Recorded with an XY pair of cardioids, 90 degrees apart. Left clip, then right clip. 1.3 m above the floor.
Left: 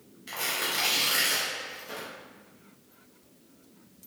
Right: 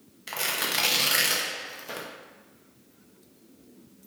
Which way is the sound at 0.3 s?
50° right.